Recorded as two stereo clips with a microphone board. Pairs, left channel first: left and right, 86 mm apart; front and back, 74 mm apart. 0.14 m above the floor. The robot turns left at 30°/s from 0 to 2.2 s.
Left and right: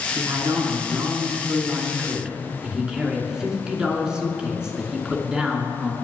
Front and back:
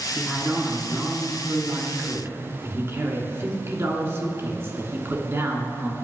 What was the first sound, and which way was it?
A man speaking, 105° right.